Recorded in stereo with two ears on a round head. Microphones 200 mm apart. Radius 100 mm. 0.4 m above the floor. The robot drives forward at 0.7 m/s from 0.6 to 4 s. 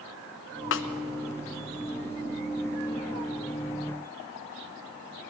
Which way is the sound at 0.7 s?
65° left (ahead or behind).